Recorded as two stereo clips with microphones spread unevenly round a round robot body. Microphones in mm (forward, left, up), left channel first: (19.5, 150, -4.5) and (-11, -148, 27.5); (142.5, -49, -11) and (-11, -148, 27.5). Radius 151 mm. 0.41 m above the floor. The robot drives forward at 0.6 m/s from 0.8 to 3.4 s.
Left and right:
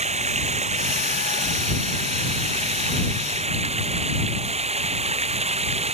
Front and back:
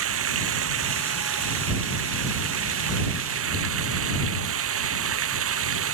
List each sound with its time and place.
0.0 s running water: 165° right; by 5.9 s 170° right